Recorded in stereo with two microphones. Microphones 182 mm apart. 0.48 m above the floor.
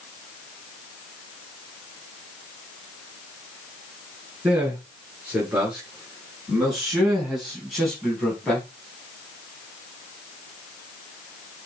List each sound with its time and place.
4.4 s a man speaking: 10° right (ahead or behind), 5.5 m; by 8.7 s 5° left (ahead or behind), 3.5 m